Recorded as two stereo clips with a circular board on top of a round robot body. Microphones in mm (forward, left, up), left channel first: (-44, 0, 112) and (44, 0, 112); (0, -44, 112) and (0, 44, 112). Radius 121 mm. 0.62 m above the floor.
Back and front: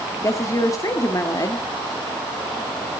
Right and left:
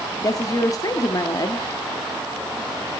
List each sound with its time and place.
0.2 s a woman speaking: 130° right, 1.7 m